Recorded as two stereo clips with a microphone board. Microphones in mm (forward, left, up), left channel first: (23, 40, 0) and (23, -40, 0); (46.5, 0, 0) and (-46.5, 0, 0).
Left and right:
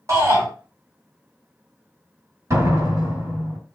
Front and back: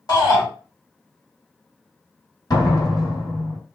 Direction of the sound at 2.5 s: 45° right.